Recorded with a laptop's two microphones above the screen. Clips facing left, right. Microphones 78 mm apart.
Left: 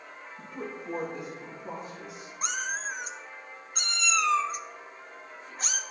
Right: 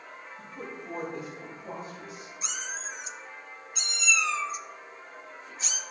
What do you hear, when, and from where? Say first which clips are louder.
0.4 s a woman speaking: left 3 dB; 40° left (ahead or behind), 1.3 m; by 2.3 s centre (ahead or behind), 2 m
2.4 s a cat meowing: left 6 dB; 50° left (ahead or behind), 0.6 m